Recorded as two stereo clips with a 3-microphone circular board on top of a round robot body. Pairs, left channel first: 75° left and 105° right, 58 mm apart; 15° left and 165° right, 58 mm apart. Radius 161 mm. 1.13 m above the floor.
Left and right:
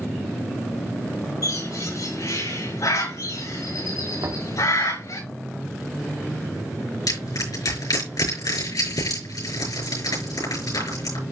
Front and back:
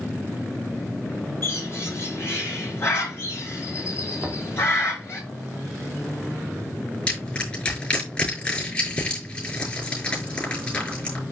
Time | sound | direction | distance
1.4 | a bird | 60° left | 6 m
4.2 | knocking | 75° right | 2.5 m
7.1 | crushing | 85° left | 6 m